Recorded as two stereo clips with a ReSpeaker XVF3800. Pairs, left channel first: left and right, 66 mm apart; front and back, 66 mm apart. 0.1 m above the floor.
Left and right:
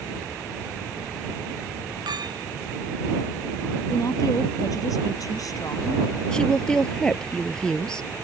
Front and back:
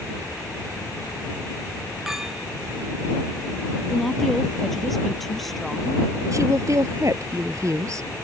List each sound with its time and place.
2.1 s a clink: 95° right
3.9 s a woman speaking: 85° left
6.3 s a woman speaking: 165° left